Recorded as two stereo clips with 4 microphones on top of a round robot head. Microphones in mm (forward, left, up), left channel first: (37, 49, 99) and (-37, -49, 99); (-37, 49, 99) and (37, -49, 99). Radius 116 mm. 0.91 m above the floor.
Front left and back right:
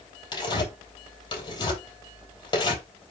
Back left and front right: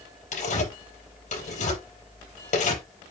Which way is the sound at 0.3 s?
110° left.